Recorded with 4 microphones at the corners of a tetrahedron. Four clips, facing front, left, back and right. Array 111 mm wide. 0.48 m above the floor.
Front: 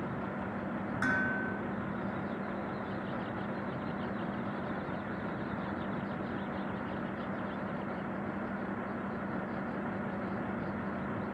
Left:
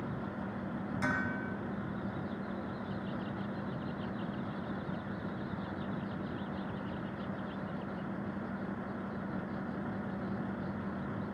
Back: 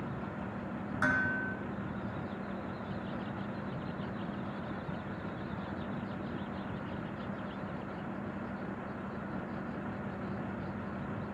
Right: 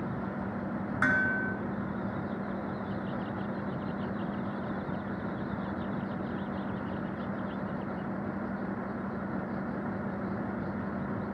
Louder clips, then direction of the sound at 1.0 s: Right 8 dB, back 1 dB; 90° right.